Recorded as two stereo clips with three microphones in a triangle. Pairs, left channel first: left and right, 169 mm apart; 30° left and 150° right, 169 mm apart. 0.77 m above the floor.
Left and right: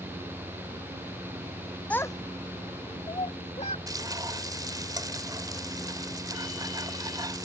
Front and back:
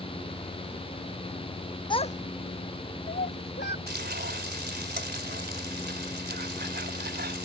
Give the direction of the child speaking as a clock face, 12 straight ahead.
11 o'clock.